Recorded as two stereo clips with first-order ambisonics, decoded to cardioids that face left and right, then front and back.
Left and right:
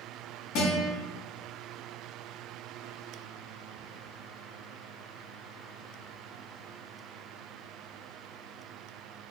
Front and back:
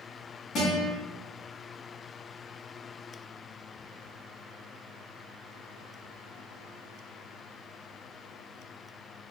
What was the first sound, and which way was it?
A guitar, 55° left.